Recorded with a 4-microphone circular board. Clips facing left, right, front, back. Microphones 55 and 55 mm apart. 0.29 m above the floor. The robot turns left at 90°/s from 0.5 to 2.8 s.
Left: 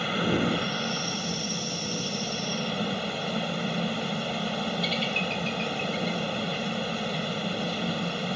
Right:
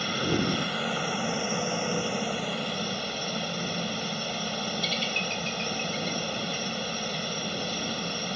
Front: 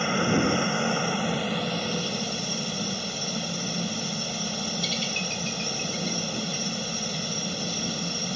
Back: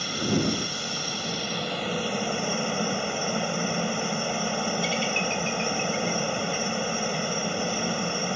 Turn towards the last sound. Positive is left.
turn(degrees=170)